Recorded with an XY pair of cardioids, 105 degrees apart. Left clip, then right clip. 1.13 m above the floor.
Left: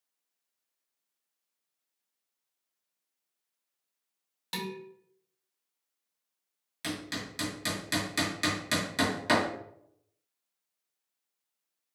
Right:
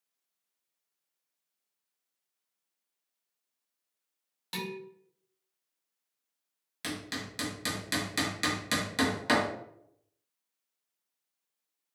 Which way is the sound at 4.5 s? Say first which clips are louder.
Left 1 dB; 15° left.